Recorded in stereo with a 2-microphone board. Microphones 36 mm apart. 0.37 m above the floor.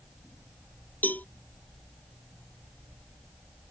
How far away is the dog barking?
No dog barking in this recording.